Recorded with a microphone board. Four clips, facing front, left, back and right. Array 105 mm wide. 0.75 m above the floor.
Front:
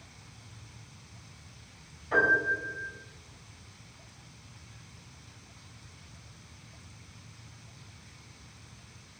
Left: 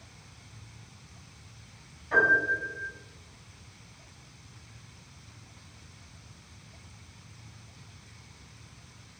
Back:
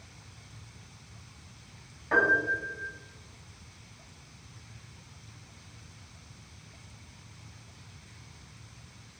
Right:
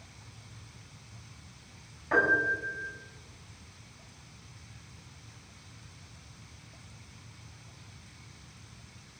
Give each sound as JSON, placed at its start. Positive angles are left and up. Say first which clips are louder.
{"t": 2.1, "sound": "a piano", "louder": "left 2 dB, even", "azimuth_deg": -140, "distance_m": 1.6}